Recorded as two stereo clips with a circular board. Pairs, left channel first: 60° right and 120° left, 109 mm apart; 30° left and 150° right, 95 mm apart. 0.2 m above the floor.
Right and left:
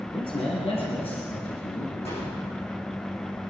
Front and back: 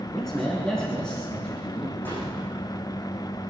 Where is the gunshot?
40° right, 7.5 m.